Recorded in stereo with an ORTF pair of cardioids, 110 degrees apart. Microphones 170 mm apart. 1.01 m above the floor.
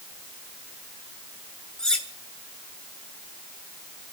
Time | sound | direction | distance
1.8 | cutlery clinking | 5° left | 3 m